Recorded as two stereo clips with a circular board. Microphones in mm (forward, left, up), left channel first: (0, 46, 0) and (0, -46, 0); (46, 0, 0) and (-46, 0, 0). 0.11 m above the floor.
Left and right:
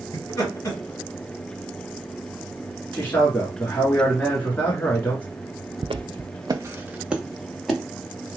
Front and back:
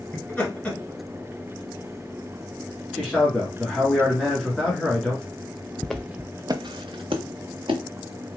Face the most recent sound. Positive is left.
turn(degrees=175)